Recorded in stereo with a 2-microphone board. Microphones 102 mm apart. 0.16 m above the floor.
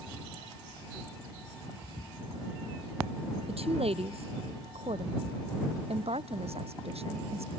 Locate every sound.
3.5 s a woman speaking: 75° right (ahead or behind); by 7.5 s 80° right